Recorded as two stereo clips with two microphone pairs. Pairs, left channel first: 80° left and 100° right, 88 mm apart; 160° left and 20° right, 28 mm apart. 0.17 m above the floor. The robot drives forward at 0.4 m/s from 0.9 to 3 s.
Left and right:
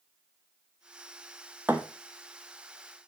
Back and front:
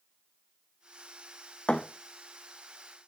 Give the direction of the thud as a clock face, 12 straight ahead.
6 o'clock.